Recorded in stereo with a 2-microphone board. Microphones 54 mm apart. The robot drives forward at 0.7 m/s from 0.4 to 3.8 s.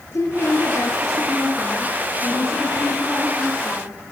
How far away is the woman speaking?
About 5.5 m.